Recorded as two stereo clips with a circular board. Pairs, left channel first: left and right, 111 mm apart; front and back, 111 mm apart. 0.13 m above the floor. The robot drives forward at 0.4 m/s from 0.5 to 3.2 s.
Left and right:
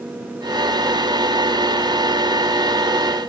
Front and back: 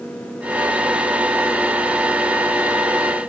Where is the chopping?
No chopping in this recording.